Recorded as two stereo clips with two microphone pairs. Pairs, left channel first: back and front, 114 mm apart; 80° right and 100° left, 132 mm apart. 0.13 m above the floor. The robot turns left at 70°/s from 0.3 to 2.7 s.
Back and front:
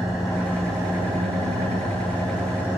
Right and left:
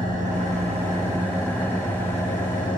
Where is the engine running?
85° left, 3 m; by 2.8 s 80° right, 3 m.